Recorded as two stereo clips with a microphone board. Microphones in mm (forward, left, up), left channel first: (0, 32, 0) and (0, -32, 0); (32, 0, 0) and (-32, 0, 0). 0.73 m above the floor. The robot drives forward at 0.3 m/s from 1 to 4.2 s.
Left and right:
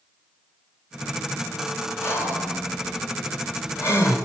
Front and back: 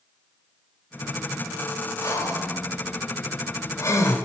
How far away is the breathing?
About 3.5 m.